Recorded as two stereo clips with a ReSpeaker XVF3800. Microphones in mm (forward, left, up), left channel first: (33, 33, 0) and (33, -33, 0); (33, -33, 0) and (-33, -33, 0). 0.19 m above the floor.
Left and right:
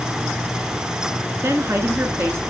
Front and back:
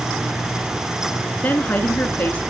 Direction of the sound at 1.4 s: 55° right.